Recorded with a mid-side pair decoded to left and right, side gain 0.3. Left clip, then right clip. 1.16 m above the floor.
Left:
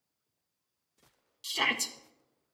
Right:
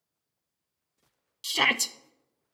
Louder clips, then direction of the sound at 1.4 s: Right 5 dB; 65° right.